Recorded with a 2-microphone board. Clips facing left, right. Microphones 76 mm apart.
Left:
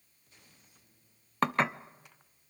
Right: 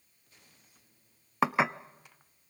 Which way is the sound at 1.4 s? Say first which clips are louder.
Right 1 dB; 10° right (ahead or behind).